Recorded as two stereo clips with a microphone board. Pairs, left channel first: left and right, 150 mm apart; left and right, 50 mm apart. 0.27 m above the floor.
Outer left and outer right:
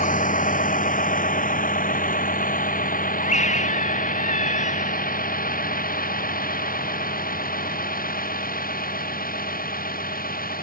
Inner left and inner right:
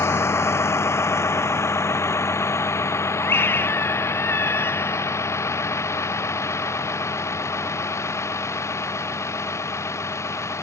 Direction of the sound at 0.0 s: 60° left (ahead or behind).